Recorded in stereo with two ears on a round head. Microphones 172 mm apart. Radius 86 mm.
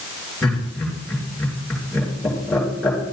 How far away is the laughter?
About 6 m.